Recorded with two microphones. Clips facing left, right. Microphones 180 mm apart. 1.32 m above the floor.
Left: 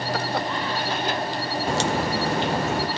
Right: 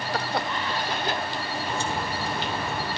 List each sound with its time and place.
0.0 s an insect: 40° left (ahead or behind), 0.9 m
1.7 s a crack: 80° left, 0.9 m